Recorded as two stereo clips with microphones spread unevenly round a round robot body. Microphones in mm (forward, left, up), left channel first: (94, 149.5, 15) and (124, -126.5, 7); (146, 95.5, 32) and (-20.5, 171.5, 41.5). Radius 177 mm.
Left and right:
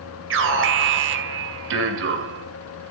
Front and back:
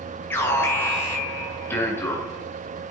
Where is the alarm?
95° right, 2 m.